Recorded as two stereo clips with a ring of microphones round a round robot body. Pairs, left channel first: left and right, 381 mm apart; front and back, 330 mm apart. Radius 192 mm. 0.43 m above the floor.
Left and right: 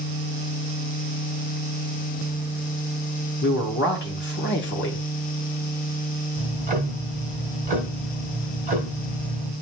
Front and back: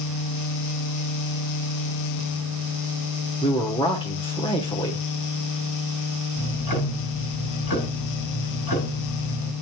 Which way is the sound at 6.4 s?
25° right.